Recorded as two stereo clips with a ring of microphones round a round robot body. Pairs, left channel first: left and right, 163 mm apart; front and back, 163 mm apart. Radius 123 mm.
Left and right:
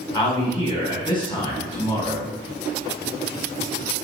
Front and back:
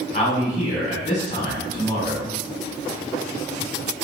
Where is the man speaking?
40° left, 1.4 m.